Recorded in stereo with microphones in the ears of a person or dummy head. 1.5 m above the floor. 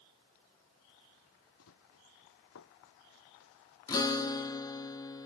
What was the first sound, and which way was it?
Running footsteps, 85° left.